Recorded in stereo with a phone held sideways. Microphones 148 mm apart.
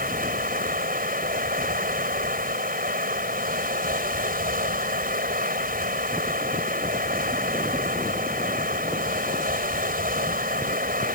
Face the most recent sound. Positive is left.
turn(degrees=-80)